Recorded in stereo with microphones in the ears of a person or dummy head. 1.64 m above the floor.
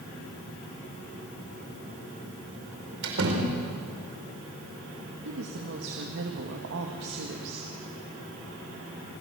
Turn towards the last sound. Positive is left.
turn(degrees=-70)  # may be behind; listen again after turning